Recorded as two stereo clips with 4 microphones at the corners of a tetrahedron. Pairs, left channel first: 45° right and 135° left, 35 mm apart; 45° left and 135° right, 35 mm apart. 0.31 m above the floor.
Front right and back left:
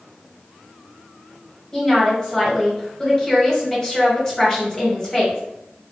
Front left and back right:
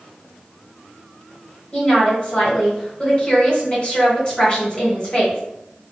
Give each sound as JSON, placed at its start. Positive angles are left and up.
{"t": 1.7, "sound": "a woman speaking", "azimuth_deg": 10, "distance_m": 1.4}